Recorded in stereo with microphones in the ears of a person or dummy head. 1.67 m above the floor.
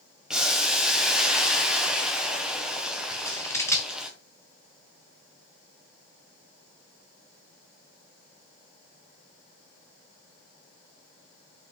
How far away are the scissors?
About 0.5 m.